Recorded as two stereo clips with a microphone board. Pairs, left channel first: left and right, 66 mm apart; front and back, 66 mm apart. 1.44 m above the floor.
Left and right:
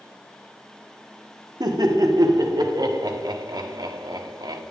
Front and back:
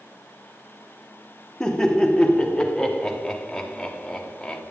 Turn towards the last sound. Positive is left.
turn(degrees=-80)